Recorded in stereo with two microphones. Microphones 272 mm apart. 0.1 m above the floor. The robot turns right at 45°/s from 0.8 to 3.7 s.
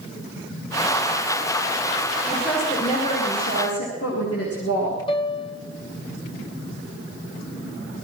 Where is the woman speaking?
5° right, 8 m; by 5.0 s 60° left, 8 m.